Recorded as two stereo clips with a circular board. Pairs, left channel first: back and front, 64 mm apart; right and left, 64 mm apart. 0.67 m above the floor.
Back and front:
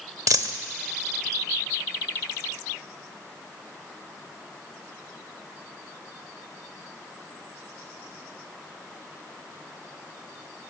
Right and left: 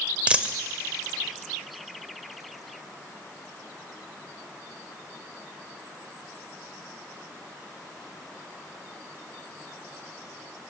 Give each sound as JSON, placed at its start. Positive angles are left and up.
{"t": 0.3, "sound": "a dropped coin", "azimuth_deg": 20, "distance_m": 0.9}